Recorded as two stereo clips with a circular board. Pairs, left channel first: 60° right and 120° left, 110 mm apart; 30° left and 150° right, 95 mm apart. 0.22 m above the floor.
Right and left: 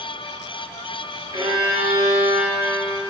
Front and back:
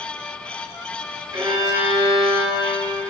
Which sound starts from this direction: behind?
A violin, at 1.3 s.